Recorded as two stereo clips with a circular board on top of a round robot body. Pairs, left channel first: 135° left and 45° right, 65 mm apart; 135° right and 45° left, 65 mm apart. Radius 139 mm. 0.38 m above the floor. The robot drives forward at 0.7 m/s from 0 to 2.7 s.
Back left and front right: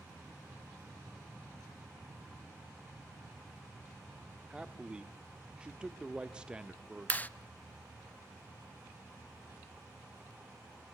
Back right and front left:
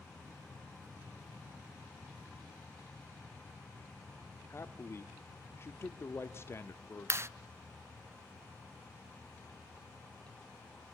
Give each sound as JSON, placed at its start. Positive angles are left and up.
{"t": 4.5, "sound": "a man speaking", "azimuth_deg": -115, "distance_m": 1.3}
{"t": 7.1, "sound": "a clap", "azimuth_deg": 75, "distance_m": 0.8}